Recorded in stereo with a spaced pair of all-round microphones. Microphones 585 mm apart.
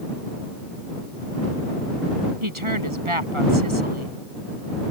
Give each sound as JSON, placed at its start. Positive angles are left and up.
{"t": 2.4, "sound": "a woman speaking", "side_deg": -50}